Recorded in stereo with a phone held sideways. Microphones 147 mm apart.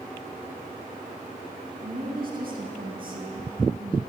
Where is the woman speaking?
75° right (ahead or behind), 2.5 m.